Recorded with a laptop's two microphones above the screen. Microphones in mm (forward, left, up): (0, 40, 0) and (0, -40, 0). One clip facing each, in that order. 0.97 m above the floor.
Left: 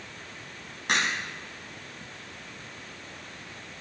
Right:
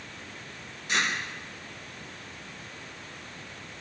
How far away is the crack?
About 9 m.